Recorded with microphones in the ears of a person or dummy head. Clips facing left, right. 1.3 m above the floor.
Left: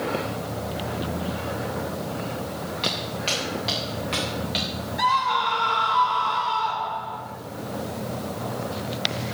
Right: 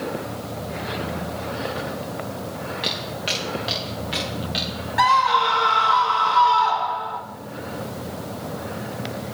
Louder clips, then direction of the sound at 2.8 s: Even; 15° right (ahead or behind).